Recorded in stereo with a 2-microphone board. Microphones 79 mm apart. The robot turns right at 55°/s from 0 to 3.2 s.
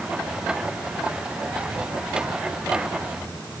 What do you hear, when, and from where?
Only background noise.